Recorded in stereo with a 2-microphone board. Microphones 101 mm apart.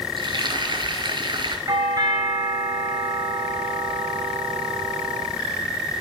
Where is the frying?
50° right (ahead or behind), 2 m.